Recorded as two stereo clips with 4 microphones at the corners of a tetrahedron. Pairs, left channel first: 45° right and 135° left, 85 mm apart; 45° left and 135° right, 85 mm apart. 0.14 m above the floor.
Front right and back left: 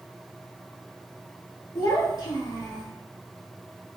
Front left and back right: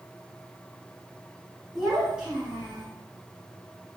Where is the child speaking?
55° right, 0.9 m; by 2.9 s 65° right, 1.3 m.